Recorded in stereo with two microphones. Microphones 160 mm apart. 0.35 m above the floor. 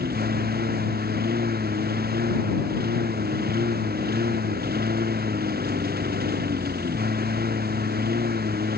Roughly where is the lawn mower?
Right.